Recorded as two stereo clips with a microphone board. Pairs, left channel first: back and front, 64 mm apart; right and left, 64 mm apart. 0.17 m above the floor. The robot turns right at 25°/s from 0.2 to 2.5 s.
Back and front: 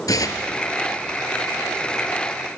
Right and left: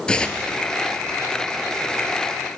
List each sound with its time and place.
0.1 s tearing paper: 165° right, 0.9 m; by 0.5 s 160° right, 0.9 m